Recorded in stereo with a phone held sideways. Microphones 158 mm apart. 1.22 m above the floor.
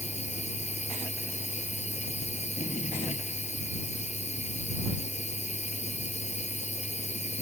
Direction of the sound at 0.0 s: 45° left (ahead or behind).